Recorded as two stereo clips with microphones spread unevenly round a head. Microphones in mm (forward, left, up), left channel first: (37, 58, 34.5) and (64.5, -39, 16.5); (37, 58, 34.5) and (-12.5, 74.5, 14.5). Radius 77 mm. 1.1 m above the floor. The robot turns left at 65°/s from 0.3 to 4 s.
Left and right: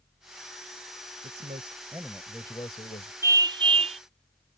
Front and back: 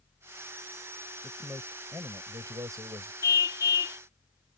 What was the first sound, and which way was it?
A man speaking, 100° right.